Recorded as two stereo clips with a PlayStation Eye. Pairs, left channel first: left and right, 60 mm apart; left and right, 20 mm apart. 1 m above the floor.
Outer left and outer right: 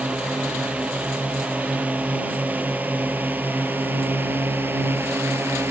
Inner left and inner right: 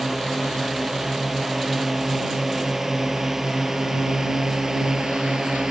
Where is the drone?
15° right (ahead or behind); by 5.7 s 35° right (ahead or behind).